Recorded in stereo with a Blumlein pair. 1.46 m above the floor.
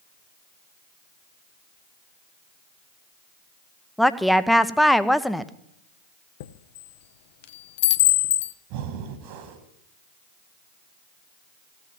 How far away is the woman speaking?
About 0.7 m.